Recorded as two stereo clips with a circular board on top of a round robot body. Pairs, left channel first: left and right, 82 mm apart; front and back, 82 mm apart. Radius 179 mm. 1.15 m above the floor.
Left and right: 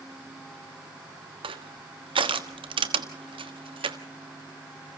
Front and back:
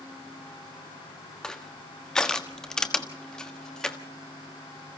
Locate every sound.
1.4 s crushing: 80° right, 1.4 m